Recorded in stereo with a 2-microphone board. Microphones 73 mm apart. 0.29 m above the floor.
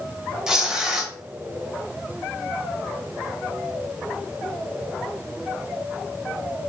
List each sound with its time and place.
0.5 s tearing paper: 5° right (ahead or behind), 0.6 m